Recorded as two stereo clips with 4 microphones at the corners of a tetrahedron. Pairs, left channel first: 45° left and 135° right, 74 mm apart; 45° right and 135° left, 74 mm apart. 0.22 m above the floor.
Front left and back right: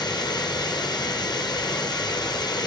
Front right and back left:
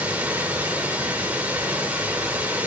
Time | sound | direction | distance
0.0 | running water | 65° left | 1.3 m